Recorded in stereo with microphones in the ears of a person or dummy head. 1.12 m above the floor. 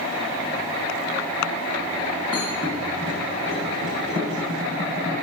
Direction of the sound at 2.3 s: 25° right (ahead or behind).